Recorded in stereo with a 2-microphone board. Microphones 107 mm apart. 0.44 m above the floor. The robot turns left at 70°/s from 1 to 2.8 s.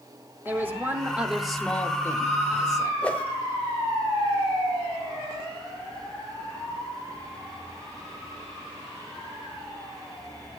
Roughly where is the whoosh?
Centre.